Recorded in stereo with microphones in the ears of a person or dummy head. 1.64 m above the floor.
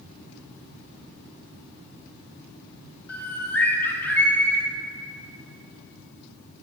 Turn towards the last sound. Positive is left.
turn(degrees=15)  # may be behind; listen again after turning